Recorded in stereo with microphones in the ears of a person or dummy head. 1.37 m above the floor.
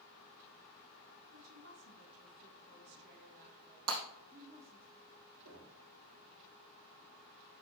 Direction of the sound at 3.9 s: 55° right (ahead or behind).